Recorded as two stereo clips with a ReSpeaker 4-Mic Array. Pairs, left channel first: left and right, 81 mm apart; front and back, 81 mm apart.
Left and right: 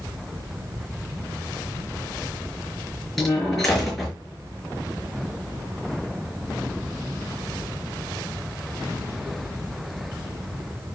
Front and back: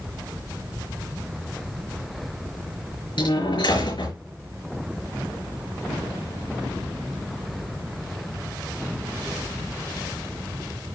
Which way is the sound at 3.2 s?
5° left.